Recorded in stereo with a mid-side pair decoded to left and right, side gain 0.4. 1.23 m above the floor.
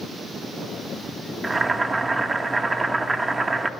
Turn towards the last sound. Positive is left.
turn(degrees=-30)